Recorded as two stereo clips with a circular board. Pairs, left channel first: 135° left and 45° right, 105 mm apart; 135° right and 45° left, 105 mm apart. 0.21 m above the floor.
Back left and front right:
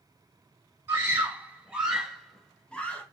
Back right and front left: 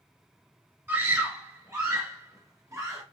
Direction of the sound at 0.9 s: Straight ahead.